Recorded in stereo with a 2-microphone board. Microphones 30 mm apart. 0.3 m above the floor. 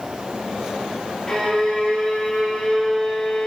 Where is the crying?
No crying in this recording.